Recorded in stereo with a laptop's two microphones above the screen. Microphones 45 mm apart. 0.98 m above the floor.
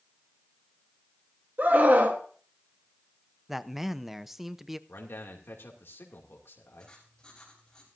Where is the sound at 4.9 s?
70° left (ahead or behind), 2.5 m.